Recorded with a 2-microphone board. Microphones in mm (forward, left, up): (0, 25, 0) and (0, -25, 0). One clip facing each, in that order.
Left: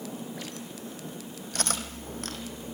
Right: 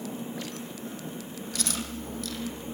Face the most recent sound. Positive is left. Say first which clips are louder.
# left 2 dB
turn(degrees=45)  # may be behind; listen again after turning